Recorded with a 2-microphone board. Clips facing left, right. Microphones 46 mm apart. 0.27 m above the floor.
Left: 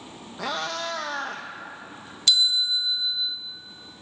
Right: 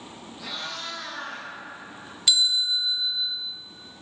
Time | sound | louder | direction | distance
0.4 | a cat meowing | left 7 dB | 65° left (ahead or behind) | 1.1 m
2.3 | a bell | left 1 dB | 10° right (ahead or behind) | 0.8 m